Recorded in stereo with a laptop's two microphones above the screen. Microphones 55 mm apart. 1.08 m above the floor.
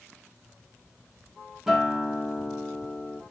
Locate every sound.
1.7 s a guitar: 10° right (ahead or behind), 0.8 m